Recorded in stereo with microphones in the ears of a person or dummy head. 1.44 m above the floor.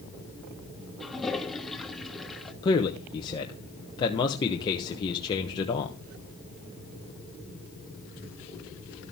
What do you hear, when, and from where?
1.0 s a toilet flushing: 5° left (ahead or behind), 1.1 m
2.6 s a man speaking: 30° left (ahead or behind), 1.1 m